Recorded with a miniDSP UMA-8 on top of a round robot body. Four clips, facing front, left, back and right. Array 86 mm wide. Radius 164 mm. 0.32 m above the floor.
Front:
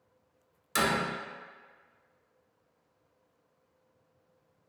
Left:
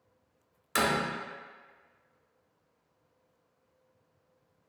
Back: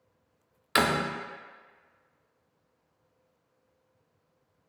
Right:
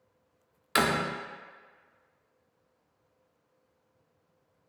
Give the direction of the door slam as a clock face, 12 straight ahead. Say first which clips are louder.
Right 2 dB, back 3 dB; 5 o'clock.